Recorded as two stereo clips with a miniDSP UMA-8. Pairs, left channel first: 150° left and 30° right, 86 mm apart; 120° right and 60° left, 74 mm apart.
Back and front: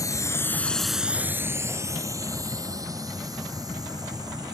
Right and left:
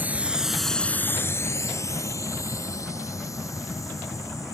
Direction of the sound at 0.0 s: 120° left.